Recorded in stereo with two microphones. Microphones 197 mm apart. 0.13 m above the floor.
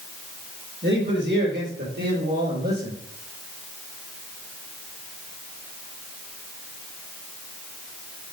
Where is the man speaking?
65° right (ahead or behind), 4 m; by 3.0 s 50° right (ahead or behind), 4.5 m.